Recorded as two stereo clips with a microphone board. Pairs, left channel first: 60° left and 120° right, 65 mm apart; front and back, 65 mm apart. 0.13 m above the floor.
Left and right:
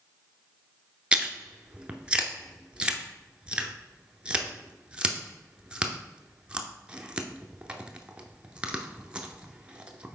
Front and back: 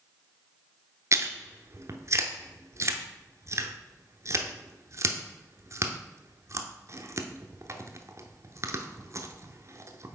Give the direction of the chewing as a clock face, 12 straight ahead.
6 o'clock.